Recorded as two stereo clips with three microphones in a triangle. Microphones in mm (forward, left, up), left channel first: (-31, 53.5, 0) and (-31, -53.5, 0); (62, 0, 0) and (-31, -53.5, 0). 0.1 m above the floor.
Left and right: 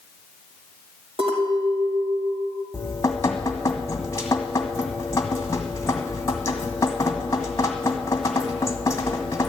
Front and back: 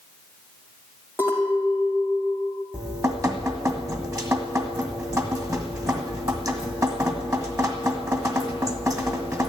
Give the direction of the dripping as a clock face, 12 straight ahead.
7 o'clock.